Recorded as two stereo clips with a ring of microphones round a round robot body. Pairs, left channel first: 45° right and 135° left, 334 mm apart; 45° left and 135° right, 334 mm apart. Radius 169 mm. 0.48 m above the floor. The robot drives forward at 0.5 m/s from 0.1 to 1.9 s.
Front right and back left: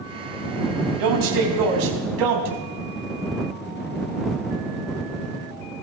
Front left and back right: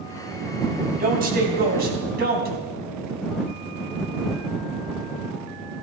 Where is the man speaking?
160° left, 3.5 m; by 2.5 s 165° left, 4 m.